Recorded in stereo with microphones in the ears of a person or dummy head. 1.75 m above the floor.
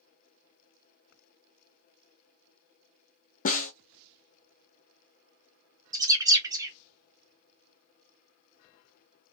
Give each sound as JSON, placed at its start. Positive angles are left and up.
{"t": 3.5, "sound": "a snare drum", "side_deg": 45, "distance_m": 0.8}
{"t": 5.9, "sound": "a bird", "side_deg": -20, "distance_m": 0.6}